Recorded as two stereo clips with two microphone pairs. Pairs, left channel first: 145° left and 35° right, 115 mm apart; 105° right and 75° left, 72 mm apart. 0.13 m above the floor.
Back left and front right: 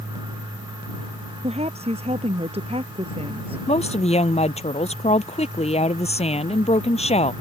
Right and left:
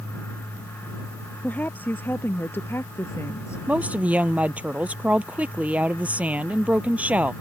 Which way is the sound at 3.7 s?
145° left.